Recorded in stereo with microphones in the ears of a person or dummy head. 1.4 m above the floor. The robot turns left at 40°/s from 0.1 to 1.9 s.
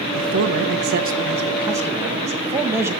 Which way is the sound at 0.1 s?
95° right.